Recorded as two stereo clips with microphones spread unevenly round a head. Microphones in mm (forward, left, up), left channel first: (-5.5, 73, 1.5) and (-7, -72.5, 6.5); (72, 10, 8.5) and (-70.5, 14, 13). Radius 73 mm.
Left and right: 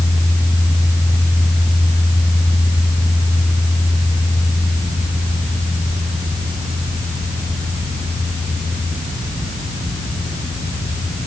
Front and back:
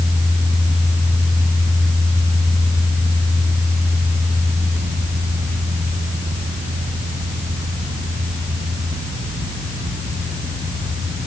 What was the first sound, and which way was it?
Only background noise.